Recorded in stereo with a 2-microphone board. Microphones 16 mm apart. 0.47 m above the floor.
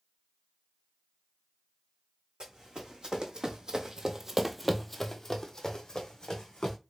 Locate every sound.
2.4 s running footsteps: 65° right (ahead or behind), 1.2 m; by 6.8 s 50° left (ahead or behind), 1.3 m